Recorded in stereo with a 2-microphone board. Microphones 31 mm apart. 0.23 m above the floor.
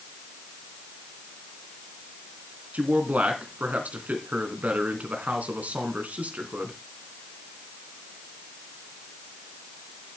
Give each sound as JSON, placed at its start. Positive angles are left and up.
{"t": 2.7, "sound": "a man speaking", "side_deg": -55, "distance_m": 3.0}